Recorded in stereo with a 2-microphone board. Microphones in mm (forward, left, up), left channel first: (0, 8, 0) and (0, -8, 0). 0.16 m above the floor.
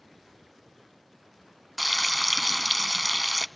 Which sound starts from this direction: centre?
Frying, at 1.8 s.